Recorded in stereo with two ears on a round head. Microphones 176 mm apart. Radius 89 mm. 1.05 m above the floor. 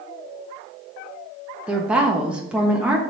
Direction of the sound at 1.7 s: 5° right (ahead or behind).